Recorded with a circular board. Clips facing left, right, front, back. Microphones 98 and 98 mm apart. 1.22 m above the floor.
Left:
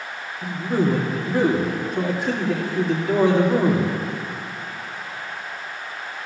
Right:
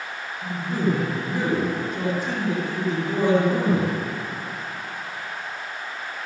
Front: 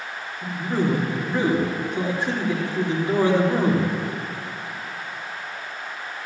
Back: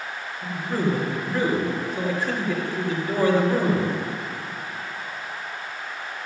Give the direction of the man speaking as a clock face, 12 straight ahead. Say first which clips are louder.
Left 3 dB, front 2 dB; 10 o'clock.